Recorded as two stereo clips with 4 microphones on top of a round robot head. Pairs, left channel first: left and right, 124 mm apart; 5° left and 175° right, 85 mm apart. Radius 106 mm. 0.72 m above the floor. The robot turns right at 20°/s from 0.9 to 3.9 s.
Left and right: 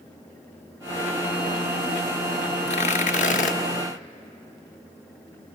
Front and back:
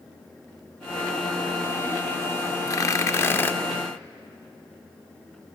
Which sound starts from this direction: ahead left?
Tearing paper, at 2.7 s.